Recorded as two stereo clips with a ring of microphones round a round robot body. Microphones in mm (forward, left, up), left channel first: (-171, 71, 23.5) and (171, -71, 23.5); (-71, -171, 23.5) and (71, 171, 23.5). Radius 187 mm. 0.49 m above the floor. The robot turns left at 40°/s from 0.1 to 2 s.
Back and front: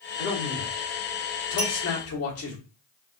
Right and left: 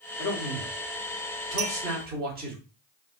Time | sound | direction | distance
0.2 | a man speaking | 165° right | 1.0 m
1.6 | a clink | 85° left | 1.3 m